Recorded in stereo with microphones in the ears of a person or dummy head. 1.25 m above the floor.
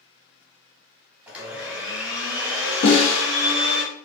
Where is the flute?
No flute in this recording.